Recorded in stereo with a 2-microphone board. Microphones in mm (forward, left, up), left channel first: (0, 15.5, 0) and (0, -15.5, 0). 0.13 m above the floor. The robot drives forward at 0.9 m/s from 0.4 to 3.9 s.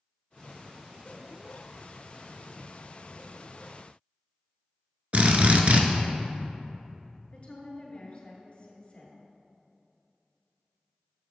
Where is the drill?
50° right (ahead or behind), 0.6 m.